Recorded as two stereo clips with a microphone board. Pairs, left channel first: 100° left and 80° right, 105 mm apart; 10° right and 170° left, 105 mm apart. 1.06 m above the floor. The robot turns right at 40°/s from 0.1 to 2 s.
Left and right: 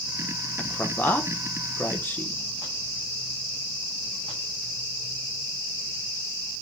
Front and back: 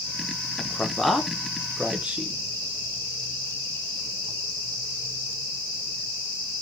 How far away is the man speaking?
About 0.7 m.